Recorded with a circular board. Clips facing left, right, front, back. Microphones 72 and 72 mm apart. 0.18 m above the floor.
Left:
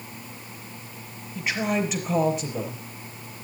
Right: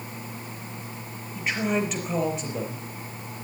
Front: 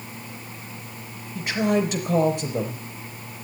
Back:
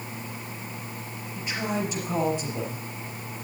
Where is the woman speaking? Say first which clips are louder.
Even, front 7 dB; straight ahead, 4.5 m.